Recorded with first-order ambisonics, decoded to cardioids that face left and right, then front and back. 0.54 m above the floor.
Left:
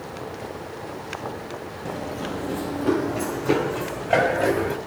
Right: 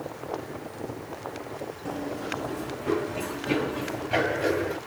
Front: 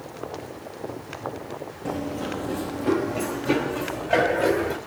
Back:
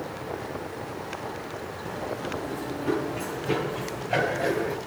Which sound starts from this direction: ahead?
Running footsteps, at 1.9 s.